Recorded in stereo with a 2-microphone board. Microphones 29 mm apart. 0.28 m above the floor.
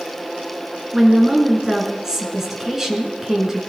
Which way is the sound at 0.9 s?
15° right (ahead or behind).